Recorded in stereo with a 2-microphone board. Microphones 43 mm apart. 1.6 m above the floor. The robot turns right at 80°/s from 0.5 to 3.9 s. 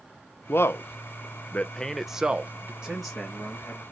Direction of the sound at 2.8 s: 20° right.